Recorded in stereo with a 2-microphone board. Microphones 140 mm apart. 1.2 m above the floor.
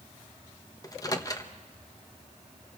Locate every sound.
0.8 s a microwave: 25° left (ahead or behind), 1.0 m